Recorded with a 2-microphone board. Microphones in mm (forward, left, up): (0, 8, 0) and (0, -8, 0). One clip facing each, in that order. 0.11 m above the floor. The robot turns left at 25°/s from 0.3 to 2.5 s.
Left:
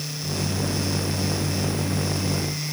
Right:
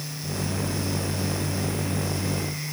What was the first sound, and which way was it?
Only background noise.